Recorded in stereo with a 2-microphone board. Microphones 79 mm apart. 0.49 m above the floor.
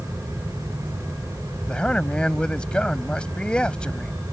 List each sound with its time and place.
1.7 s a man speaking: 10° left (ahead or behind)